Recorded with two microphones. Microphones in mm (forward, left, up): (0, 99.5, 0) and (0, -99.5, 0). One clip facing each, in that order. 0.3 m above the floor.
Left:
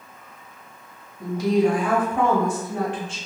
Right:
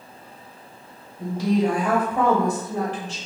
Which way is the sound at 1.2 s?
30° right (ahead or behind).